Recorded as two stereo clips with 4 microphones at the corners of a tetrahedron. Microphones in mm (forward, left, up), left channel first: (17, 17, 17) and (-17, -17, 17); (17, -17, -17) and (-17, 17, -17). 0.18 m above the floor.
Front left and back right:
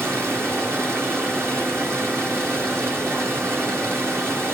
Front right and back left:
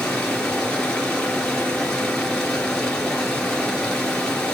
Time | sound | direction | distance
0.0 | running water | 120° right | 3 m